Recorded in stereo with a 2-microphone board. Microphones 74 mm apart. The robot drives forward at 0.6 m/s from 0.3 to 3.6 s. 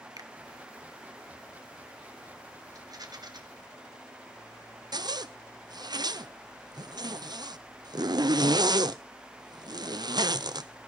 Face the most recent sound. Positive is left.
turn(degrees=-65)  # may be behind; listen again after turning